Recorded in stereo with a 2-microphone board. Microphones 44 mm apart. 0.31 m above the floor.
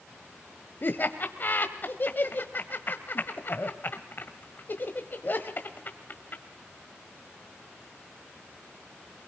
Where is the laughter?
45° left (ahead or behind), 1.5 m.